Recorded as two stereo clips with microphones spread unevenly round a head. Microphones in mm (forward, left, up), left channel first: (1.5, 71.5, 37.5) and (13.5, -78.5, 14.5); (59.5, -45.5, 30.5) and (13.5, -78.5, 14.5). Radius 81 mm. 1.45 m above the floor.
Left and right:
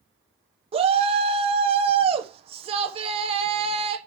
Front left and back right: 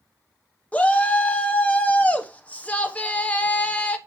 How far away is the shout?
About 0.9 m.